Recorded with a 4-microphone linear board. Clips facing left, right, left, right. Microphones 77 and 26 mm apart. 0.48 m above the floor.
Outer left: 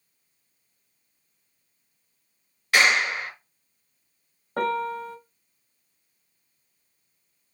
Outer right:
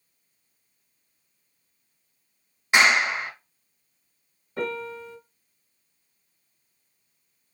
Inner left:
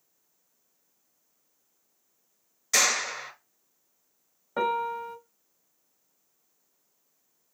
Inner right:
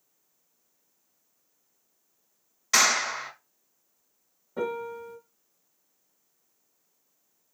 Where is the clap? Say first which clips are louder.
Outer right 1 dB, inner right 2 dB; 20° right (ahead or behind), 3 m.